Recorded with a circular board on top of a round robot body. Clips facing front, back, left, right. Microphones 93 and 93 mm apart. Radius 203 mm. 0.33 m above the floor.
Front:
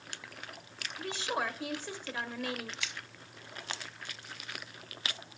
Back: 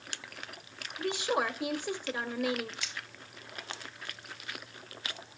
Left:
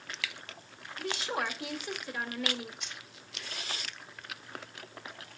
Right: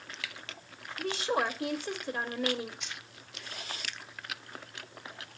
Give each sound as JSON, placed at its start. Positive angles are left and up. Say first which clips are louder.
{"t": 1.0, "sound": "a woman speaking", "louder": "back 4 dB, right 4 dB", "azimuth_deg": -110, "distance_m": 1.5}
{"t": 2.8, "sound": "keys jangling", "louder": "even, right 2 dB", "azimuth_deg": 0, "distance_m": 7.5}